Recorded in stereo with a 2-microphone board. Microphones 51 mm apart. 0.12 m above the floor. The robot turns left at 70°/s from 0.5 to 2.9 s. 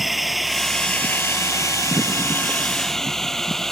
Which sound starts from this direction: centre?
A drone, at 0.0 s.